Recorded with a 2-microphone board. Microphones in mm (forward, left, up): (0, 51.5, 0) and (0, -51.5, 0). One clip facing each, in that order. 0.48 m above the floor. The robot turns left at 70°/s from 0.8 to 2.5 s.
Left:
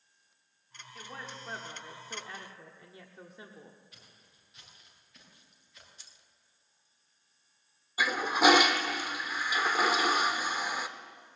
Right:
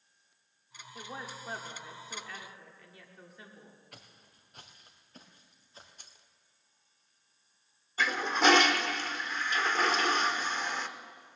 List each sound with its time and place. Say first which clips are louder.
0.9 s a woman speaking: right 2 dB; 20° right (ahead or behind), 1.0 m; by 3.8 s 25° left (ahead or behind), 1.0 m
3.9 s footsteps: right 5 dB; 65° right (ahead or behind), 1.8 m; by 5.9 s 30° right (ahead or behind), 3 m
6.0 s keys jangling: right 2 dB; 50° right (ahead or behind), 0.7 m
8.0 s a toilet flushing: left 2 dB; 10° left (ahead or behind), 0.6 m